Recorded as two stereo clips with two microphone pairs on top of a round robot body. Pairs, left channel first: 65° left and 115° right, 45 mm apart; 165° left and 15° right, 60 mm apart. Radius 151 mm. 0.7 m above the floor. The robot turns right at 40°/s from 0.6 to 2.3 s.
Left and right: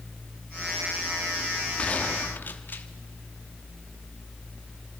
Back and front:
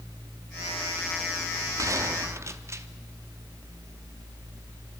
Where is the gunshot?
Straight ahead, 1.2 m; by 2.9 s 20° left, 1.2 m.